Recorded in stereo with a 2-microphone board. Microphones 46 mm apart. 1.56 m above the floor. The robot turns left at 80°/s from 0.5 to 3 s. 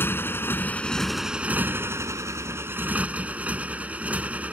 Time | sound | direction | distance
0.0 | a motorcycle | 50° left | ?